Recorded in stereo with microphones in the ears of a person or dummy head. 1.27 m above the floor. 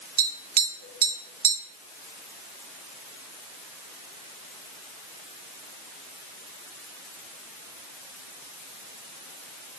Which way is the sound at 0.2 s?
45° right (ahead or behind).